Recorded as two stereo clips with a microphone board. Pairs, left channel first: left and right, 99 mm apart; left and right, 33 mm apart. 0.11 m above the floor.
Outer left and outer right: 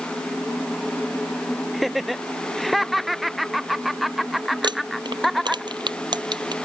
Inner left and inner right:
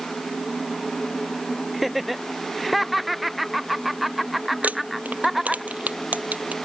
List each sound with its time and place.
1.7 s laughter: centre (ahead or behind)
4.6 s crumpling: 55° right (ahead or behind)